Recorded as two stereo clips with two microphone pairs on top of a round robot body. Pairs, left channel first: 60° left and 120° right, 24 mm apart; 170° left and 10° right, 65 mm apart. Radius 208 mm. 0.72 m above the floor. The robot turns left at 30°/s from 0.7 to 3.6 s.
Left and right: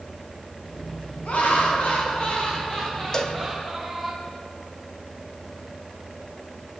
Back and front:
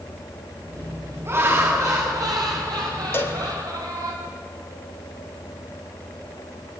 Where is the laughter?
45° left, 8.5 m; by 4.1 s 30° right, 8.5 m.